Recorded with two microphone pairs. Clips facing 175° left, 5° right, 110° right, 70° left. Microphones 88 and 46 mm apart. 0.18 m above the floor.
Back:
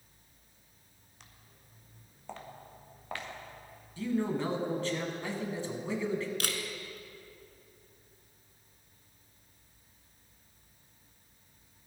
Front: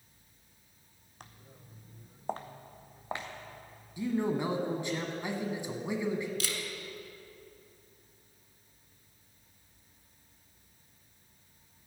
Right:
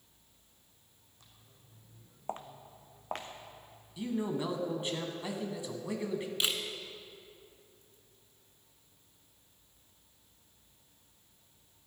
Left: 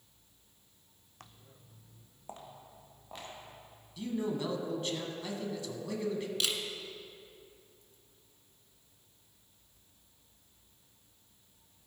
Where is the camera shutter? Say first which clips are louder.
Back 1 dB, right 2 dB; 175° right, 1.0 m.